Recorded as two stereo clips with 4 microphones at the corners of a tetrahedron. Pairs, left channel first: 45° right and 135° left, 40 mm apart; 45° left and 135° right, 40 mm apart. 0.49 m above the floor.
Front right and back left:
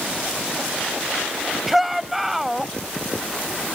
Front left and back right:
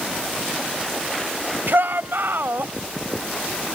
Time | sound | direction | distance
1.7 | a shout | 140° right | ?